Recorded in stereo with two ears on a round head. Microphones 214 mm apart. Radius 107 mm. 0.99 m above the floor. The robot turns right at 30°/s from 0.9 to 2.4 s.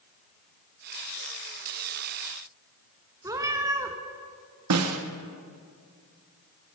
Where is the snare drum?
70° right (ahead or behind), 1.0 m.